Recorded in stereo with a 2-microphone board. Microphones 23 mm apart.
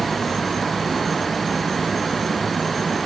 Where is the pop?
No pop in this recording.